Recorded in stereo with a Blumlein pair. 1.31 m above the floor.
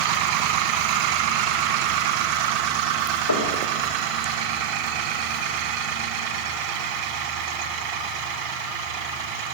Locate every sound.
3.3 s knocking: 70° left, 1.6 m